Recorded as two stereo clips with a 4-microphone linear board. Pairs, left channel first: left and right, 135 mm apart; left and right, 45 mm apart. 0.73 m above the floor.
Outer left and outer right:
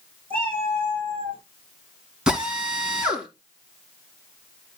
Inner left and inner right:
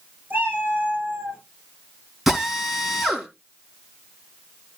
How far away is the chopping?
No chopping in this recording.